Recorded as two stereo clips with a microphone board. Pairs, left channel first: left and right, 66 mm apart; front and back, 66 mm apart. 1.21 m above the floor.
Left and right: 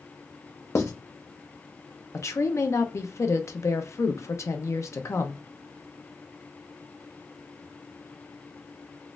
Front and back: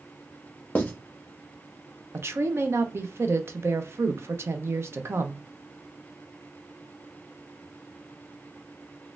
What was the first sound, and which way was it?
Writing, 60° left.